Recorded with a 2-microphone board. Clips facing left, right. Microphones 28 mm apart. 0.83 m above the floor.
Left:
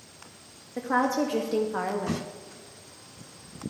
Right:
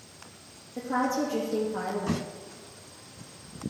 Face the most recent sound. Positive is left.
turn(degrees=55)  # may be behind; listen again after turning